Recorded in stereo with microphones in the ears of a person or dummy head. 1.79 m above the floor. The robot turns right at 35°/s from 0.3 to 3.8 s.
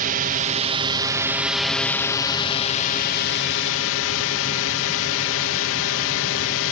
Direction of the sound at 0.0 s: 50° right.